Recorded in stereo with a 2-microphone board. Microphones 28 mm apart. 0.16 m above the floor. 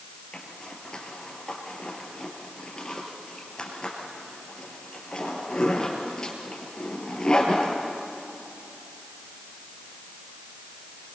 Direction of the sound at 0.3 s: 25° left (ahead or behind).